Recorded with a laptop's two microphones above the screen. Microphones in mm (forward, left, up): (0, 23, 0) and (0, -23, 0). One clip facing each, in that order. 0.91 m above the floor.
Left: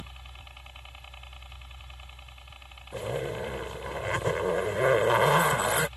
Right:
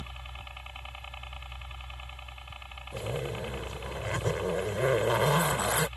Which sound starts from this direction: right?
A helicopter, at 0.0 s.